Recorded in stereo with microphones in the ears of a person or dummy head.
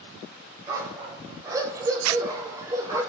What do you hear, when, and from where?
0.7 s a dog barking: 20° right (ahead or behind), 3.5 m; by 3.0 s 15° right (ahead or behind), 2.5 m
2.0 s a zipper: 75° right (ahead or behind), 0.5 m